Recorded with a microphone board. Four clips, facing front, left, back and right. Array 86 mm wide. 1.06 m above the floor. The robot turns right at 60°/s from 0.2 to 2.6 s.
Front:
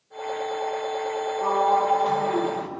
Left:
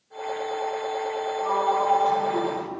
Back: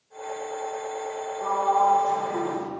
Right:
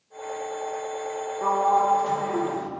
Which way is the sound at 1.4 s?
75° right.